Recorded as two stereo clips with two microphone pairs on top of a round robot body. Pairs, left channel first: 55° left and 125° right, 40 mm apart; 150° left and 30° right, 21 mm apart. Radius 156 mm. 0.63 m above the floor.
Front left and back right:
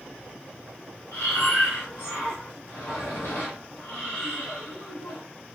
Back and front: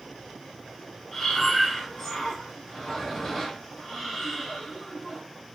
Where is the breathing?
90° left, 0.5 m.